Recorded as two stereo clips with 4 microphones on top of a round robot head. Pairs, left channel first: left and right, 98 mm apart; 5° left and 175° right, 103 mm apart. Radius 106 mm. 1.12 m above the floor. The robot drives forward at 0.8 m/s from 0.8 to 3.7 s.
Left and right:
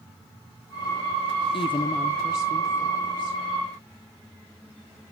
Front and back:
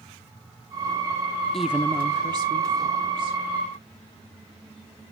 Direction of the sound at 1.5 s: 90° left.